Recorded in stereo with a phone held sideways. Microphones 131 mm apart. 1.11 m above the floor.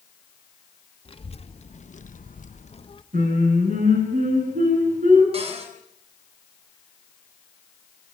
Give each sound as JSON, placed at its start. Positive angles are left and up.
{"t": 1.1, "sound": "a child speaking", "side_deg": 40, "distance_m": 1.8}
{"t": 3.1, "sound": "singing", "side_deg": -80, "distance_m": 9.5}
{"t": 5.3, "sound": "a cupboard door", "side_deg": -50, "distance_m": 6.5}